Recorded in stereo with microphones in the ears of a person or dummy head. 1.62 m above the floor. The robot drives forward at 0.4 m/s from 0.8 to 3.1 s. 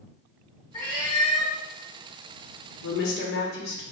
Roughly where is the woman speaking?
Left.